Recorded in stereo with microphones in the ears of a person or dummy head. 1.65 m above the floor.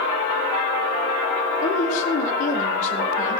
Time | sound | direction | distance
1.6 | a woman speaking | 40° left (ahead or behind) | 4 m